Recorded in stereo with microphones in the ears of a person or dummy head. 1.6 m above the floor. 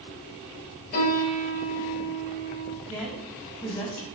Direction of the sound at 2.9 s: 5° left (ahead or behind).